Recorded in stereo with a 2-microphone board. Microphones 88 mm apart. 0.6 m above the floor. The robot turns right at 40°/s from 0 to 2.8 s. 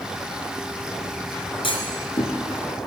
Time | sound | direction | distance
1.6 | a clunk | 70° left (ahead or behind) | 4.5 m